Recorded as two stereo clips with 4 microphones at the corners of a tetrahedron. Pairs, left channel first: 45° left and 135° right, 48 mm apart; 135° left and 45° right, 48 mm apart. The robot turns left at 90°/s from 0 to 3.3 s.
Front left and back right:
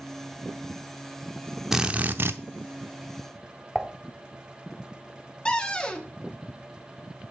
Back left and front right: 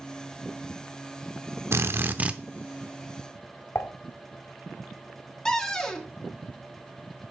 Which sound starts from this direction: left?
A cupboard door, at 5.5 s.